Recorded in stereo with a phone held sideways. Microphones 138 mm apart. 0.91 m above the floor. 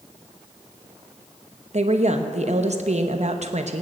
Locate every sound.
1.7 s a woman speaking: 55° right (ahead or behind), 0.8 m